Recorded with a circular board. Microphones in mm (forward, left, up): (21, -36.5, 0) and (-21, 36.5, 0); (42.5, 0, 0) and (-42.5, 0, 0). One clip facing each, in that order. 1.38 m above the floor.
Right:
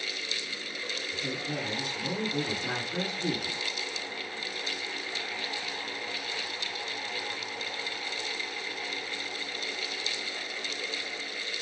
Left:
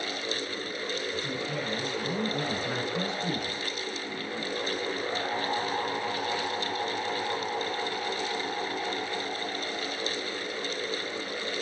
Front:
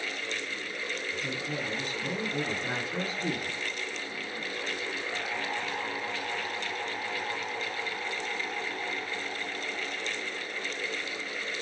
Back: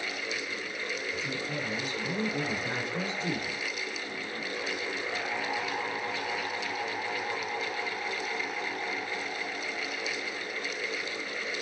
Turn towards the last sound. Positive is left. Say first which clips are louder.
# left 2 dB, even
turn(degrees=-35)